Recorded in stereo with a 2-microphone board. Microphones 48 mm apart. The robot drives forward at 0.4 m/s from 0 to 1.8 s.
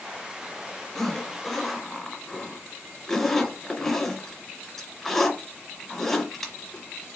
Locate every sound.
0.9 s a zipper: 10° left (ahead or behind), 1.3 m; by 7.0 s 5° left (ahead or behind), 1.5 m